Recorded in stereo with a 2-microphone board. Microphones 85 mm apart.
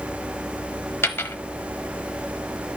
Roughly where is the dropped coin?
Left.